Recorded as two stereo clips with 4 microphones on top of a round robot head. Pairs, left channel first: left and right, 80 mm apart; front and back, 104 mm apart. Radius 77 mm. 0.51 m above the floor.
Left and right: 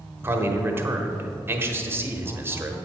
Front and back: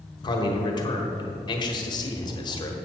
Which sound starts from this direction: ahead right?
A man speaking, at 0.2 s.